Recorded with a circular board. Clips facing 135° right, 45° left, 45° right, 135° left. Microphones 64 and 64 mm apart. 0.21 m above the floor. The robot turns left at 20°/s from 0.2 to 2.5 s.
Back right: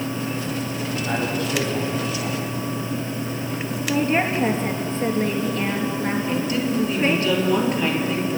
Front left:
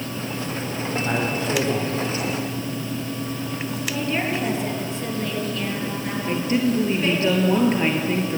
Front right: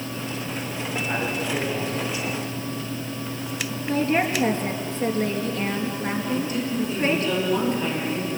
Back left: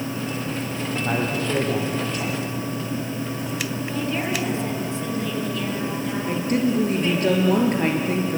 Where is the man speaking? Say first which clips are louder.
Even, back left 3 dB; 120° left, 7.5 m; by 2.4 s 95° left, 7.5 m.